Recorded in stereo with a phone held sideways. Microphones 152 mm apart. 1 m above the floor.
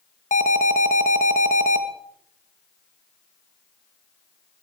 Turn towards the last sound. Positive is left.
turn(degrees=55)  # may be behind; listen again after turning